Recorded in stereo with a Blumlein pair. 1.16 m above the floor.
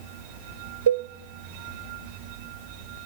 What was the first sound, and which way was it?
A cowbell, 65° right.